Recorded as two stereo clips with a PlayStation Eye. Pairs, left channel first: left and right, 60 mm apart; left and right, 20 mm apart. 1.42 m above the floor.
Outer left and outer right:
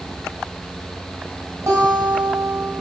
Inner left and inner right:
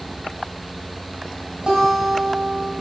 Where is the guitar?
60° right (ahead or behind), 2 m.